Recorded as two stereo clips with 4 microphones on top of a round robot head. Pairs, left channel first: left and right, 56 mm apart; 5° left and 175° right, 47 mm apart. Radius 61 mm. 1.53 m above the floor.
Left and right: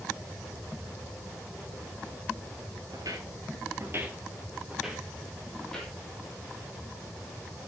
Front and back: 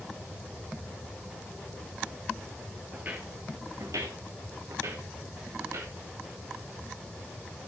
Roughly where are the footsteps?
Right.